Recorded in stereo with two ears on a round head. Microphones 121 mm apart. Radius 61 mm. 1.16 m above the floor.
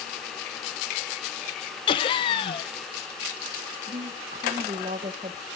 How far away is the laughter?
About 0.7 m.